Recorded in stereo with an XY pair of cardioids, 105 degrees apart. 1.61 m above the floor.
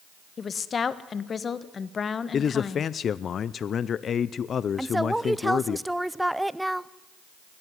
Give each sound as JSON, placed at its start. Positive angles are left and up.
{"t": 0.4, "sound": "a woman speaking", "azimuth_deg": 40, "distance_m": 1.3}
{"t": 2.3, "sound": "a man speaking", "azimuth_deg": 50, "distance_m": 0.6}
{"t": 4.8, "sound": "a woman speaking", "azimuth_deg": -5, "distance_m": 0.6}